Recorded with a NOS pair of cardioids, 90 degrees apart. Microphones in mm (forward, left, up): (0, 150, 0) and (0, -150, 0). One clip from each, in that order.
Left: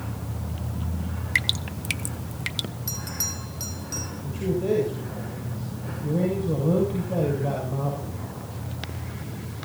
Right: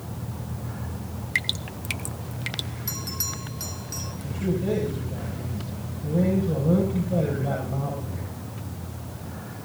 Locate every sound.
1.4 s dripping: 10° left, 0.5 m
2.9 s a bell: straight ahead, 3.5 m
4.2 s a man speaking: 15° left, 7.5 m